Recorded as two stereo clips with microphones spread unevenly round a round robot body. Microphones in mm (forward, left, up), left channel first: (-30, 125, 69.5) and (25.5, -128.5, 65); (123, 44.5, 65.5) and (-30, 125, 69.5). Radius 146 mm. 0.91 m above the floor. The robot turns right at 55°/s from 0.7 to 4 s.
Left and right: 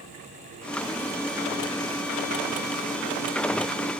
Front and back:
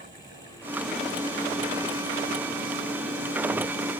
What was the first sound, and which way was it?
Only background noise.